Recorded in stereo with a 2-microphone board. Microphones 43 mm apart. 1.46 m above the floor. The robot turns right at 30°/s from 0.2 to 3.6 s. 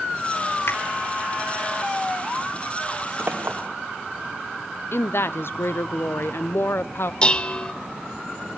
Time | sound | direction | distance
0.7 | a finger snap | 70° left (ahead or behind) | 2.5 m
3.2 | a clink | 60° right (ahead or behind) | 3 m
4.9 | a woman speaking | 65° left (ahead or behind) | 0.6 m
7.2 | dishes clattering | 20° left (ahead or behind) | 0.7 m